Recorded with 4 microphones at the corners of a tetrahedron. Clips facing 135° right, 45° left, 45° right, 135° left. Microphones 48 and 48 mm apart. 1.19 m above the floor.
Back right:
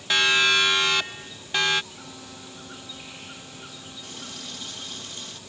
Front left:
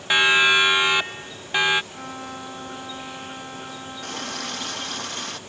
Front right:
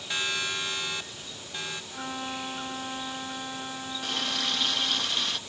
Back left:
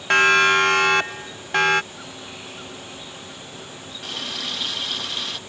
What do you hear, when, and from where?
0.1 s a siren: 115° left; by 1.8 s 120° left
1.9 s a violin: 5° left
4.0 s a running tap: 45° left